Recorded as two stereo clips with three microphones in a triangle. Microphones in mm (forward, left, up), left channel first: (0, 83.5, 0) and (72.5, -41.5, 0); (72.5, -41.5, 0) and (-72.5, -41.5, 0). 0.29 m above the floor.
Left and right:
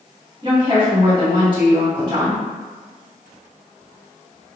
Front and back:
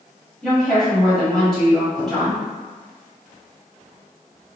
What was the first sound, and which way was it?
A woman speaking, 85° right.